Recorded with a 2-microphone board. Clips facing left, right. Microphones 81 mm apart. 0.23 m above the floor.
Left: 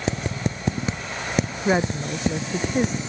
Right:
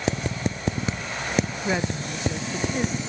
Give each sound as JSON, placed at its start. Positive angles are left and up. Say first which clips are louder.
{"t": 1.6, "sound": "a woman speaking", "louder": "left 4 dB", "side_deg": 25}